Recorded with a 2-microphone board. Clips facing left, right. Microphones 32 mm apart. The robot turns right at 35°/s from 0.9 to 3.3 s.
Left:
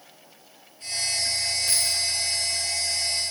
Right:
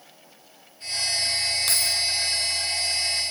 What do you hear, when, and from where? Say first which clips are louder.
1.7 s keys jangling: right 2 dB; 70° right (ahead or behind), 3.5 m; by 2.0 s 60° right (ahead or behind), 3.5 m